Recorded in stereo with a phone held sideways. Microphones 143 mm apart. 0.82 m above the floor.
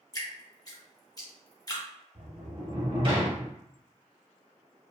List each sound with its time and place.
0.1 s dripping: 25° left (ahead or behind), 0.7 m
2.1 s a sliding door: 40° right (ahead or behind), 0.7 m